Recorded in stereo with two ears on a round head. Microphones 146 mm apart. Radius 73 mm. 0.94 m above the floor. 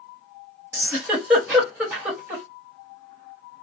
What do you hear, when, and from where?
0.7 s a giggle: 15° right (ahead or behind), 1.3 m